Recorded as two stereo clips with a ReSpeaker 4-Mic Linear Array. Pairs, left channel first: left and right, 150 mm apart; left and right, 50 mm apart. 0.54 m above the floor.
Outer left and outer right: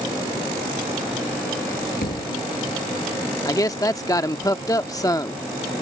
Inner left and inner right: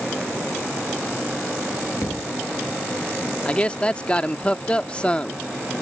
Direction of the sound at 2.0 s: 85° left.